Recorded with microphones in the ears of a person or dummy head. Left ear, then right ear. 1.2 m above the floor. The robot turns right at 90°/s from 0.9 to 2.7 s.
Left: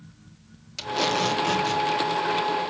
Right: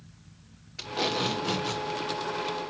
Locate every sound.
0.8 s tape being pulled: 85° left, 3 m; by 1.8 s 170° left, 3 m